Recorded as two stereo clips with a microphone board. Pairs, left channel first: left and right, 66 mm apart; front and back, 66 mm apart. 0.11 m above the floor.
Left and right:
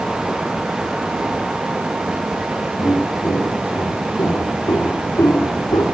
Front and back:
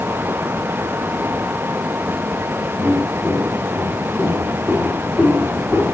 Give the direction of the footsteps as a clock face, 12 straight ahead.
8 o'clock.